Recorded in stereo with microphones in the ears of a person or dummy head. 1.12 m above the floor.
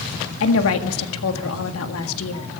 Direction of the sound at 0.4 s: 80° left.